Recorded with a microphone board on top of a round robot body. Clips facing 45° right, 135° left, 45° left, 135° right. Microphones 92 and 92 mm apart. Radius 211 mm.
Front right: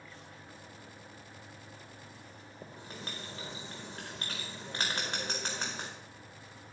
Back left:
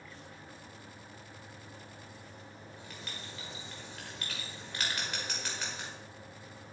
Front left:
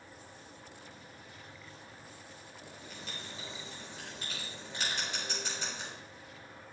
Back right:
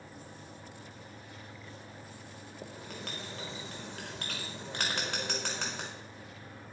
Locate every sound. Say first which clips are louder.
2.6 s writing: front right 5 dB, back right 6 dB; 105° right, 0.5 m